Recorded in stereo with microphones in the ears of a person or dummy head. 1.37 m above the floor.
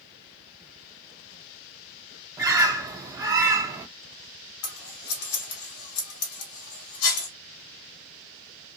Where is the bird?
20° right (ahead or behind), 0.6 m.